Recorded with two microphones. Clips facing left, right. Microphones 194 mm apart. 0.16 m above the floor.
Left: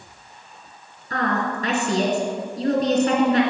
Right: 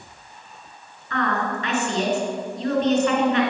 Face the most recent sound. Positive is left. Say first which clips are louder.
# left 1 dB
turn(degrees=40)  # may be behind; listen again after turning